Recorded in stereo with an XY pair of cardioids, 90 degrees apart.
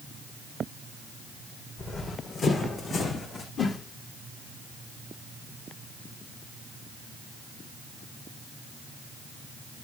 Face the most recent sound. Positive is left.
turn(degrees=55)